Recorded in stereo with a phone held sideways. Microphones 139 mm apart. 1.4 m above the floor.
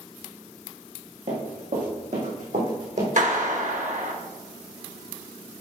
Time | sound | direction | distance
1.3 | running footsteps | 65° right (ahead or behind) | 4.5 m
3.2 | a clap | 65° right (ahead or behind) | 1.3 m